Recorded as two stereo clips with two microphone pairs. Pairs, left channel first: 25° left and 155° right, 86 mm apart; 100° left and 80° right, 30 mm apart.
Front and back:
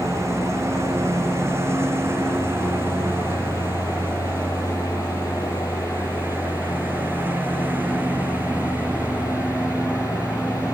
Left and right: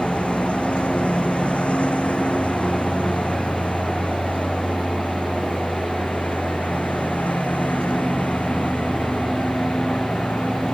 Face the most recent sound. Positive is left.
turn(degrees=135)